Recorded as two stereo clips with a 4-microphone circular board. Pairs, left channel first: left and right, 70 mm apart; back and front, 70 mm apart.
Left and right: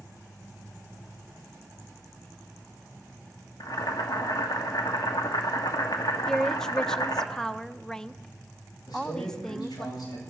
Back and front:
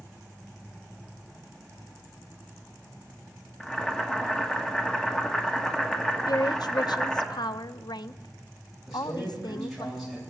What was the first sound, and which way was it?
Boiling, 100° left.